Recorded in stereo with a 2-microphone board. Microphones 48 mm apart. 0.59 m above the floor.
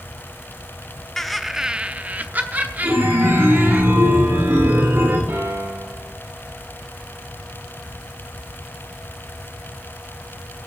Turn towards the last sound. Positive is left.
turn(degrees=-60)  # may be behind; listen again after turning